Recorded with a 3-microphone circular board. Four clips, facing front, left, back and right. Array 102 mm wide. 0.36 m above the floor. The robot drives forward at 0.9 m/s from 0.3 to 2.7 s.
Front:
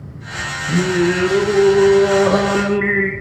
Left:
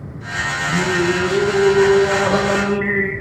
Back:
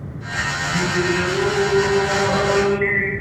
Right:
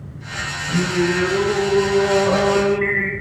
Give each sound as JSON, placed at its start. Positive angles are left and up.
{"t": 0.7, "sound": "singing", "azimuth_deg": 15, "distance_m": 6.5}